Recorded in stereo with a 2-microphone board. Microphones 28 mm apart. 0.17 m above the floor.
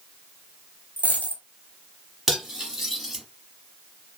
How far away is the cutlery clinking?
About 1.3 m.